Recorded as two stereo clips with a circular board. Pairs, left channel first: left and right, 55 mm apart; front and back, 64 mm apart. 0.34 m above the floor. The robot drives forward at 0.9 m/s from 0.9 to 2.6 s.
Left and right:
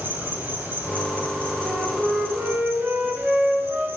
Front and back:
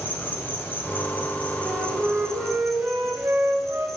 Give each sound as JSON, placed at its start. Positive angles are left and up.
{"t": 0.0, "sound": "an insect", "azimuth_deg": -50, "distance_m": 3.0}
{"t": 1.6, "sound": "a flute", "azimuth_deg": -115, "distance_m": 1.9}